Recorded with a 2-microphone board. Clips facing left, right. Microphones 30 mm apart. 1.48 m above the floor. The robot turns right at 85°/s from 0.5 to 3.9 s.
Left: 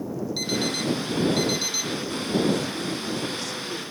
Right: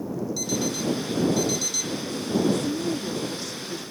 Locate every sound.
0.4 s an alarm clock: 45° left; by 2.0 s 170° left
2.5 s a woman speaking: 95° right; by 3.8 s 20° left